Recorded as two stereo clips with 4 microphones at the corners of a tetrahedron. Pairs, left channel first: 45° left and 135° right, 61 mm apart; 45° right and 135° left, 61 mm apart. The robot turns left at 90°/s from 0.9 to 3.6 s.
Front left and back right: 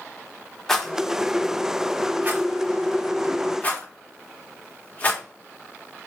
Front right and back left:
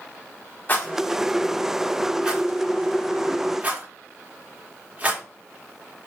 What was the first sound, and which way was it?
A rattle, 30° right.